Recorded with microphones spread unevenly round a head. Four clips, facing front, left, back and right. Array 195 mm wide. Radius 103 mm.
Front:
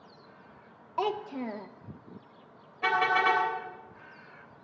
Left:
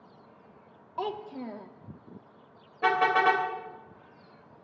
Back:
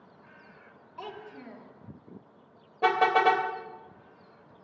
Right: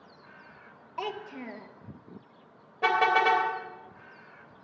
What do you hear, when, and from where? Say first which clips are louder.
1.0 s a child speaking: left 2 dB, front 11 dB; 15° left, 1.1 m
2.8 s a car horn: even, back 3 dB; 170° right, 3 m